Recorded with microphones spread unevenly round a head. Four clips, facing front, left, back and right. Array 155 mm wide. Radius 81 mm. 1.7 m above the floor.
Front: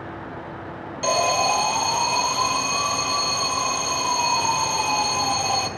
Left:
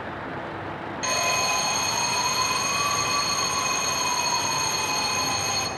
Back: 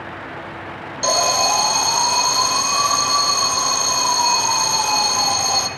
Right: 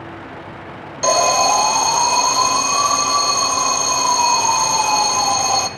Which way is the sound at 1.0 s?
95° right.